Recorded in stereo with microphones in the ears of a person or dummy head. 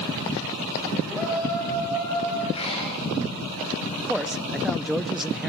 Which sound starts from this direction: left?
Breathing, at 2.5 s.